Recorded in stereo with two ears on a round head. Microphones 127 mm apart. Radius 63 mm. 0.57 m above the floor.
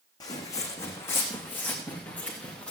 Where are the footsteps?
25° left (ahead or behind), 2.5 m; by 2.7 s 10° left (ahead or behind), 3.5 m.